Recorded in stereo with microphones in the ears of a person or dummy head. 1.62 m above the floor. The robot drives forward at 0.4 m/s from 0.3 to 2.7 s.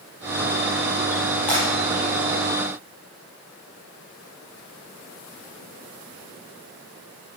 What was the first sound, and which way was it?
Breaking glass, 5° left (ahead or behind).